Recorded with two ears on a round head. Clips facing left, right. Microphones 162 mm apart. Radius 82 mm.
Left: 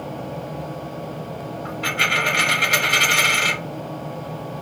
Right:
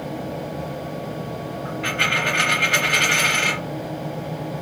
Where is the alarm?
I don't hear an alarm.